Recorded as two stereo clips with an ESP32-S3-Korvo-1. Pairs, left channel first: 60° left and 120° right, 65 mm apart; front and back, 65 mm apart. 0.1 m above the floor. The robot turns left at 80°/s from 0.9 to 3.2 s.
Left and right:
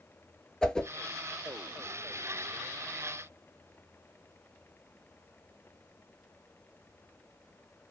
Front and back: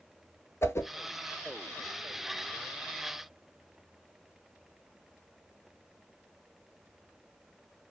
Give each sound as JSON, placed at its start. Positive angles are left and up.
{"t": 0.6, "sound": "a whoosh", "azimuth_deg": -10, "distance_m": 0.5}